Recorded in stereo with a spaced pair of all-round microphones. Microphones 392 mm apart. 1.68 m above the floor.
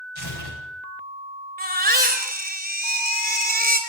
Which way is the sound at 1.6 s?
25° right (ahead or behind).